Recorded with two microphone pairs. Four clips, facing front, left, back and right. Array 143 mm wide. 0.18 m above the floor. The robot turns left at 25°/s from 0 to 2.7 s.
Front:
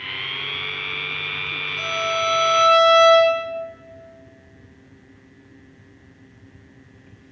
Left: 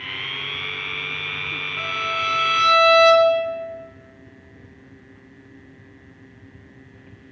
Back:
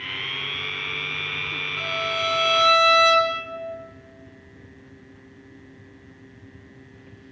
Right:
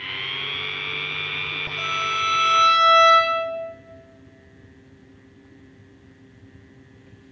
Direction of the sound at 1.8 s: 120° left.